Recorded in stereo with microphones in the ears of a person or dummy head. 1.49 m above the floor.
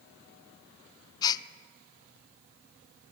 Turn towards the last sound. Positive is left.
turn(degrees=20)  # may be behind; listen again after turning